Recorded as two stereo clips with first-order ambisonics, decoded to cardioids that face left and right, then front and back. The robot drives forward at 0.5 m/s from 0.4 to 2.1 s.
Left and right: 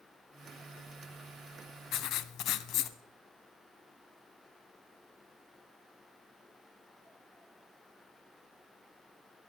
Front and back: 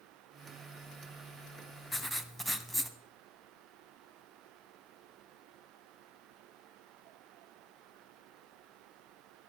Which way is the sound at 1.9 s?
80° left.